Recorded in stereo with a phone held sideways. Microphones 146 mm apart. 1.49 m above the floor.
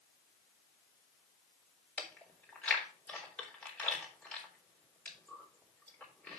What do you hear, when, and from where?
2.0 s chewing: 10° left (ahead or behind), 3 m